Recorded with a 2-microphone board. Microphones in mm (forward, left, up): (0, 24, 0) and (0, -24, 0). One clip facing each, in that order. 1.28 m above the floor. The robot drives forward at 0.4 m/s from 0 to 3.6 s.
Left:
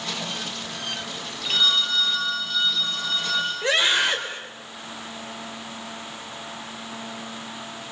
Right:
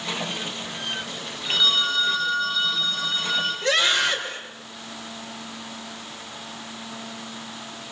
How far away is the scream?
About 6 m.